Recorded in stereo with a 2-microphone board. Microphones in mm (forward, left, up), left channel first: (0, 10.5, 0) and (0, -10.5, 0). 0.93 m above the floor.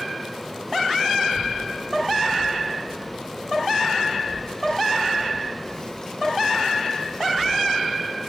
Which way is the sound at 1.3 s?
50° left (ahead or behind).